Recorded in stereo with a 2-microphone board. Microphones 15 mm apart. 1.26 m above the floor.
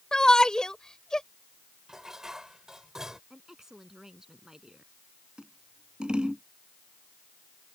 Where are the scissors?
75° right (ahead or behind).